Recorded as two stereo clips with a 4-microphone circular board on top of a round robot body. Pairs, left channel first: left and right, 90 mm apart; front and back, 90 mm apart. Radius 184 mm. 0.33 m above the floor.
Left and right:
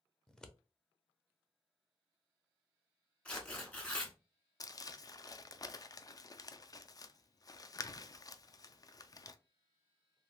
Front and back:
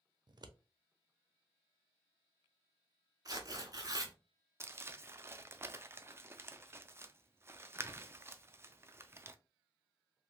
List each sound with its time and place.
0.3 s scissors: 170° left, 0.7 m
3.2 s tearing paper: 160° left, 1.4 m
4.6 s crumpling: 125° left, 0.5 m